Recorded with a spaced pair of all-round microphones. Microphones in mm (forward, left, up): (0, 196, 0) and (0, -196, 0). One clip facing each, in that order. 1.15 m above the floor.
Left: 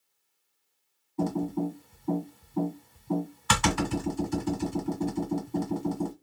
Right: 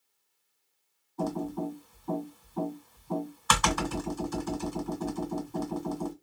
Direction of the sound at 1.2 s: 40° left (ahead or behind).